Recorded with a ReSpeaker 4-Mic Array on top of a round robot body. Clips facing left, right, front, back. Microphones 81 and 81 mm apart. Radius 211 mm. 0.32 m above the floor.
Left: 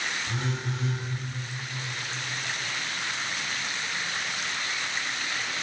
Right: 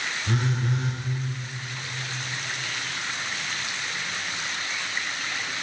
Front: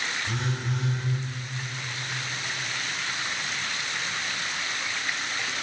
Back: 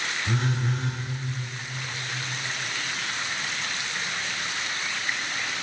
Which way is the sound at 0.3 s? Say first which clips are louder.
Right 5 dB, back 3 dB; 130° right.